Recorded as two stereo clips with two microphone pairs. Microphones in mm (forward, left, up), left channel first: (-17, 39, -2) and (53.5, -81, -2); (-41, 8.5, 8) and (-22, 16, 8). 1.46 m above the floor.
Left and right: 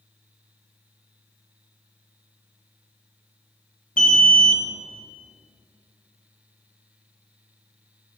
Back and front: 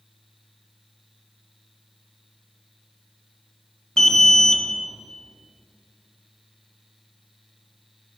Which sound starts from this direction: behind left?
An alarm, at 4.0 s.